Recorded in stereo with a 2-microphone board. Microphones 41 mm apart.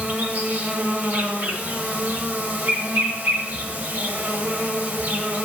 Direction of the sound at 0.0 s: 40° right (ahead or behind).